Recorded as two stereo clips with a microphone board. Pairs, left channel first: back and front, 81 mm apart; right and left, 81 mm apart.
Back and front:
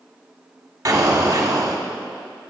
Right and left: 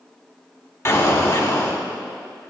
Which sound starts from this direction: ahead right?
An explosion, at 0.8 s.